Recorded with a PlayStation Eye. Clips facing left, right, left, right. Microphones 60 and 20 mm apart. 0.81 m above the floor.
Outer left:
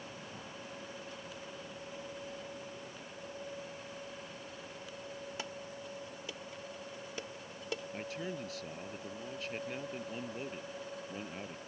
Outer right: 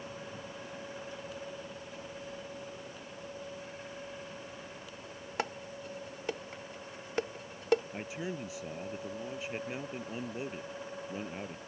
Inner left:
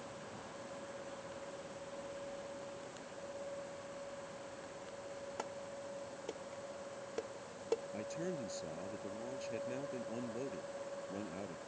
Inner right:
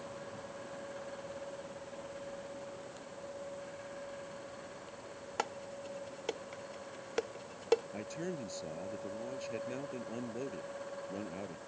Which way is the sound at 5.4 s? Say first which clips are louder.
Outer right 6 dB, inner right 10 dB; 50° right (ahead or behind).